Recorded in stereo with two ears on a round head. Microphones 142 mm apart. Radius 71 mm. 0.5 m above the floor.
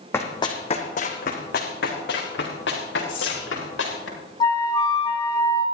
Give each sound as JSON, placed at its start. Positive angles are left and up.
{"t": 0.1, "sound": "running footsteps", "side_deg": 15, "distance_m": 1.9}
{"t": 3.1, "sound": "whispering", "side_deg": 30, "distance_m": 3.5}
{"t": 4.4, "sound": "a flute", "side_deg": 25, "distance_m": 1.8}